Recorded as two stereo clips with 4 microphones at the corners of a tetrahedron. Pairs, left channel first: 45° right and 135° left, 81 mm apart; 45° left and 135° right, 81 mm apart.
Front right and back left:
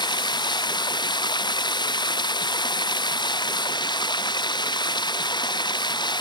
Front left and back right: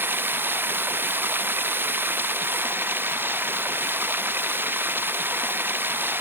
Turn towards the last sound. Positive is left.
turn(degrees=-70)